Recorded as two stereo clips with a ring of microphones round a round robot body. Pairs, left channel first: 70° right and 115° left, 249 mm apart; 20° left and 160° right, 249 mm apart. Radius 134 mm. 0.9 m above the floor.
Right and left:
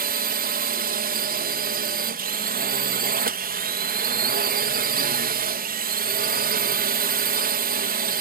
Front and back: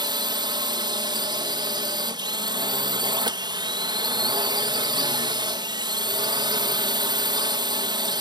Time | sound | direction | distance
0.0 | a drone | 140° left | ?